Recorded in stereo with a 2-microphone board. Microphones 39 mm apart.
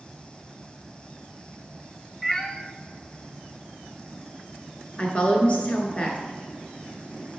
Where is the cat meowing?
10° left (ahead or behind), 0.6 m.